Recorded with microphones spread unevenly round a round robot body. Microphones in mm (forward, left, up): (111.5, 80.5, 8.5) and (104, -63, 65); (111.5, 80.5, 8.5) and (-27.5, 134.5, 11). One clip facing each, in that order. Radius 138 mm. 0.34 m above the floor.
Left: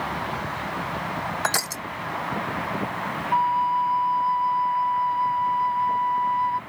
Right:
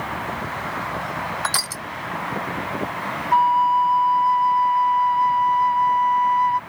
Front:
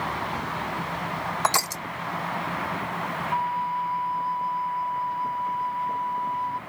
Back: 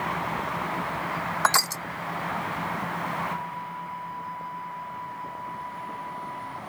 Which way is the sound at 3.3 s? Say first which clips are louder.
Right 5 dB, front 8 dB; 55° right.